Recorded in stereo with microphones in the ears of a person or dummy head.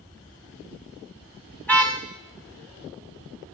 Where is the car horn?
10° left (ahead or behind), 2.5 m.